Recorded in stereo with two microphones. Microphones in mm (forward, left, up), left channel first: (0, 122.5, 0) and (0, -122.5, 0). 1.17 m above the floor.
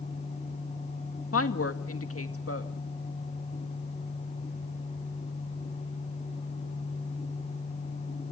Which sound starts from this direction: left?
A woman speaking, at 1.3 s.